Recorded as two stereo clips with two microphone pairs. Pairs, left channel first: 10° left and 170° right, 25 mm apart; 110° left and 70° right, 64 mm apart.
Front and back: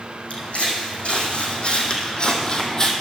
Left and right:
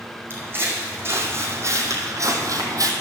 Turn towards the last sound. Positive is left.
turn(degrees=-55)